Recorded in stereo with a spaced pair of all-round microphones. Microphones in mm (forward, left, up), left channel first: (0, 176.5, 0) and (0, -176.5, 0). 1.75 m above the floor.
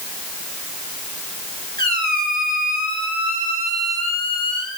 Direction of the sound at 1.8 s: 25° right (ahead or behind).